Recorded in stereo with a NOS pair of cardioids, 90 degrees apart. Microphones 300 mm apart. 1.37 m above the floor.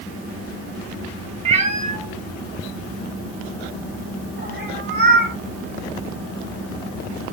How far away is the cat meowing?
About 1.7 m.